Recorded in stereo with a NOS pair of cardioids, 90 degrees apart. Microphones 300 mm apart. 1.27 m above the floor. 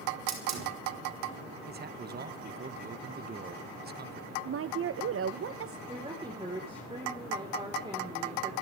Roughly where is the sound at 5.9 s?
Ahead.